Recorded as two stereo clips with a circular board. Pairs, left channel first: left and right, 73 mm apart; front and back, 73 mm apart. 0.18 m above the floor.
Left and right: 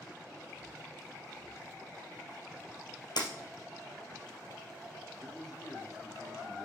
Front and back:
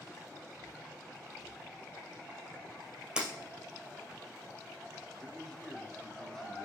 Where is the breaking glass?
100° left, 2.5 m.